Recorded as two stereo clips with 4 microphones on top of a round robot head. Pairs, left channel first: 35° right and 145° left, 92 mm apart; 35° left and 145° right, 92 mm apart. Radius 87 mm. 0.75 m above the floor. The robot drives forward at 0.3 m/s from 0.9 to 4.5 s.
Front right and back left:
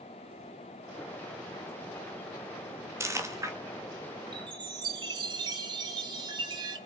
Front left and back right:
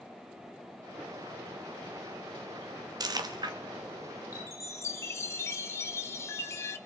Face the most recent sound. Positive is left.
turn(degrees=100)